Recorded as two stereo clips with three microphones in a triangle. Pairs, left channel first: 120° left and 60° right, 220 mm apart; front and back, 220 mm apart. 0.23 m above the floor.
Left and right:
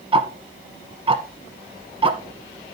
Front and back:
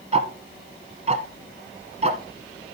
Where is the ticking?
125° right, 0.8 m.